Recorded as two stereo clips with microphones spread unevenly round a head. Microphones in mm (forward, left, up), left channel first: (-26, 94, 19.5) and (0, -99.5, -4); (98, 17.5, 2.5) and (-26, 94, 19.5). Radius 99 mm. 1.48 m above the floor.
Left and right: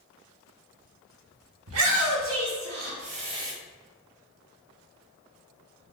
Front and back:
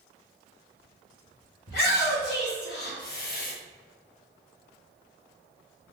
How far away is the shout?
About 1.4 m.